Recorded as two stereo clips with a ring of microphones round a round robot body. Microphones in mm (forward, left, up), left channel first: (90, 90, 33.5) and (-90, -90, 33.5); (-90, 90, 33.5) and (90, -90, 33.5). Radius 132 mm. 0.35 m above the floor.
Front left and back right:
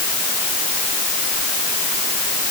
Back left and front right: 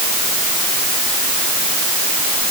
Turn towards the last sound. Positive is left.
No sound to turn to.